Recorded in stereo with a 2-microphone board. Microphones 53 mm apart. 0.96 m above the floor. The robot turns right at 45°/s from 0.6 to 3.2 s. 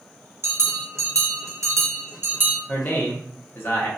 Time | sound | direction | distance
0.4 | a bell | 120° right | 0.6 m
2.7 | a man speaking | 30° left (ahead or behind) | 0.7 m